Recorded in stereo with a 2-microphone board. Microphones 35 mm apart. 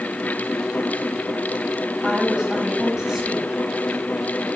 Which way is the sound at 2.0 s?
5° right (ahead or behind).